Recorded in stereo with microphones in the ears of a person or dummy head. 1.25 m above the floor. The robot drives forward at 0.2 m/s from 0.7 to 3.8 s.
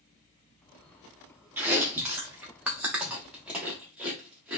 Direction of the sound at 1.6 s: 15° right (ahead or behind).